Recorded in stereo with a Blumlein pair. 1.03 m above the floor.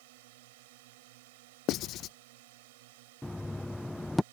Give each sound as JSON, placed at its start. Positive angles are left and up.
{"t": 0.0, "sound": "a drone", "azimuth_deg": -50}
{"t": 1.7, "sound": "writing", "azimuth_deg": 35}
{"t": 3.2, "sound": "knocking", "azimuth_deg": 5}